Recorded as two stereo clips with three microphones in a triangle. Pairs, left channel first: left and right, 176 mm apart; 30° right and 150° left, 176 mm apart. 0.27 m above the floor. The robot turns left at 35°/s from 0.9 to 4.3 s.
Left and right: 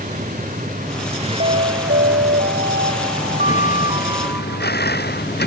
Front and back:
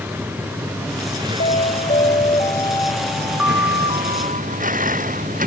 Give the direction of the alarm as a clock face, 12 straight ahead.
2 o'clock.